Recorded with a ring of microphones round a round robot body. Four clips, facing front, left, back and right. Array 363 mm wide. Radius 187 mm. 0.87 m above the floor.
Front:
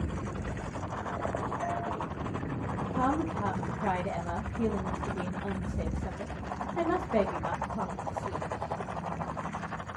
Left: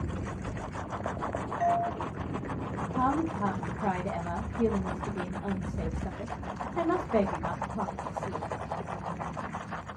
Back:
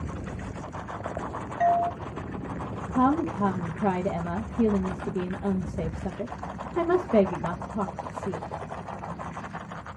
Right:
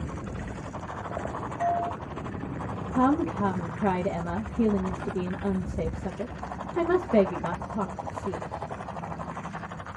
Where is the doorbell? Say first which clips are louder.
Even, back 16 dB; straight behind, 1.7 m.